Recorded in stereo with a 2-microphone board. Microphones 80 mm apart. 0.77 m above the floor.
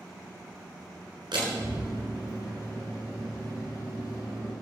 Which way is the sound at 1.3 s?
80° right.